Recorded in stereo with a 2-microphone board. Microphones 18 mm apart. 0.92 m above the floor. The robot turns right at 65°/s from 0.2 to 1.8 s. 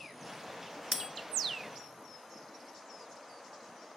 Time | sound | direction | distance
0.9 | a bell | 45° right (ahead or behind) | 0.6 m